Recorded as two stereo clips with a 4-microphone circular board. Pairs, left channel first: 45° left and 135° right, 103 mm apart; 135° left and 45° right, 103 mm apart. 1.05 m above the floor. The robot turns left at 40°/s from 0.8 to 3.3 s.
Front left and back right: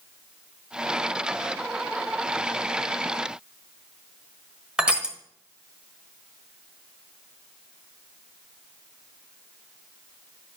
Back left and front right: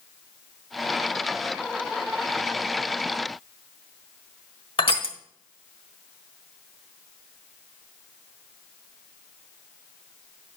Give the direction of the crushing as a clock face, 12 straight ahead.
7 o'clock.